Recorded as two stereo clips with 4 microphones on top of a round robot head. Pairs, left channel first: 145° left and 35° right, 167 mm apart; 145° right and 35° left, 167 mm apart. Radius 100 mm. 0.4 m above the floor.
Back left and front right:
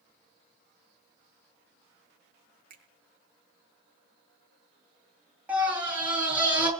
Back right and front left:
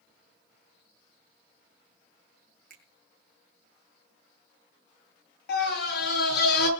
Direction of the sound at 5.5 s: 120° right.